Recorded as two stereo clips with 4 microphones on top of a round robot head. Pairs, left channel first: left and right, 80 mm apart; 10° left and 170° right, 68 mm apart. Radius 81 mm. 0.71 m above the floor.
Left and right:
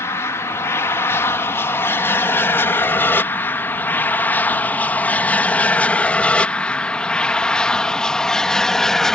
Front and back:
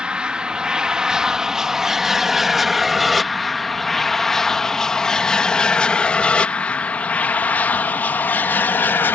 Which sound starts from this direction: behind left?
An aircraft, at 0.0 s.